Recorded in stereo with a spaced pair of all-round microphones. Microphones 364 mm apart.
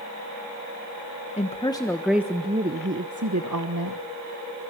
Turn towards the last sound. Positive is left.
turn(degrees=-65)  # may be behind; listen again after turning